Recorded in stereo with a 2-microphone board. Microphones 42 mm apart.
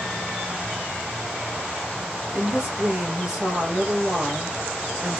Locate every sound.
2.3 s a woman speaking: 20° right (ahead or behind), 2.5 m